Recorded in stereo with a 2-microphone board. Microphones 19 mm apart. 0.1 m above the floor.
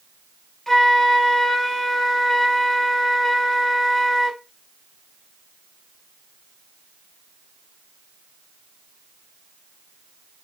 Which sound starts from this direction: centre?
A flute, at 0.7 s.